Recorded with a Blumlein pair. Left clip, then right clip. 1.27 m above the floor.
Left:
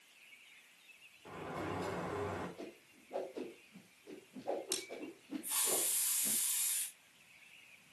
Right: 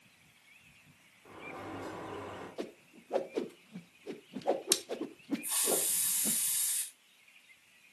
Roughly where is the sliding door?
Ahead.